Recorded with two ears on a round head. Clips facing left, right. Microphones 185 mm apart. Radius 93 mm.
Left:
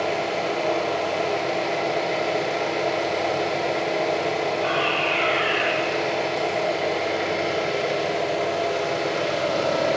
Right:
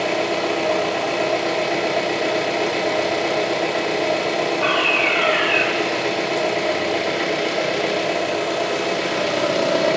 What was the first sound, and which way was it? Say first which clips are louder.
An engine running: right 4 dB; 70° right (ahead or behind).